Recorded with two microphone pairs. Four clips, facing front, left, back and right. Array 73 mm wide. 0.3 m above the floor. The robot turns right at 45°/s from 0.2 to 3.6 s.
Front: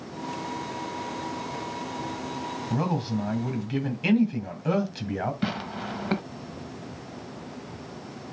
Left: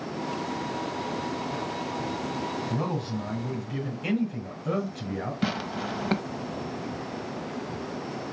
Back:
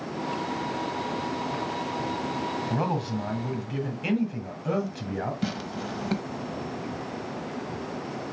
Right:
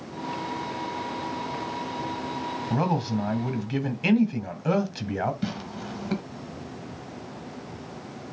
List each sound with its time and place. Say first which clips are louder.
2.7 s a man speaking: right 4 dB, front 3 dB; 125° right, 2 m; by 5.3 s 85° right, 2 m
5.4 s tearing paper: left 4 dB, front 1 dB; 50° left, 0.9 m